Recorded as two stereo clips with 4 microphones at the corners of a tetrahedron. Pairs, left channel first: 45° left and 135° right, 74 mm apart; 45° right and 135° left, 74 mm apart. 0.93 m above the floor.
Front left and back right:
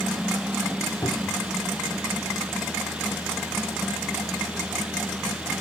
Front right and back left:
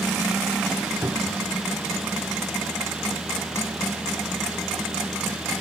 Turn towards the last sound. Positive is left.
turn(degrees=85)